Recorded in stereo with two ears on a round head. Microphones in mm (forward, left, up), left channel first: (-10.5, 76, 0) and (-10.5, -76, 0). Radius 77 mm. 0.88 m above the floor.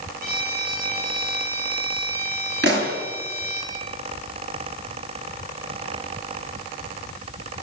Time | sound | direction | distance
0.2 | a violin | 60° right (ahead or behind) | 9.5 m
2.6 | a pop | 70° right (ahead or behind) | 6.5 m